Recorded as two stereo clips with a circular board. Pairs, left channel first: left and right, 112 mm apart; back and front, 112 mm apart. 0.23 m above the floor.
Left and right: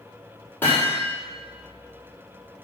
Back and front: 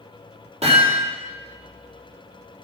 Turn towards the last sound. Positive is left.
turn(degrees=20)